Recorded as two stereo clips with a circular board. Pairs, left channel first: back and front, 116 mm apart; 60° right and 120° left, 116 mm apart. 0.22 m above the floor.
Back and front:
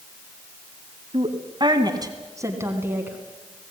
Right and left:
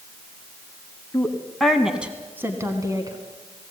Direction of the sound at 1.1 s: 10° left.